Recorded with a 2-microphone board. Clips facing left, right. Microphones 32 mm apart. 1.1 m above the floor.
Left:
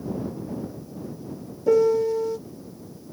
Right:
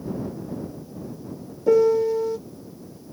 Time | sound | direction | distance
1.7 | a piano | 5° right (ahead or behind) | ?